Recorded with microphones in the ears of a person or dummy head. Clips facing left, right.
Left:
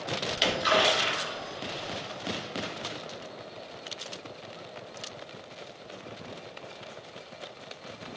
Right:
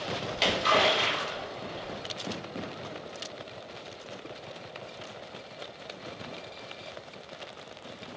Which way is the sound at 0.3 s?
15° left (ahead or behind).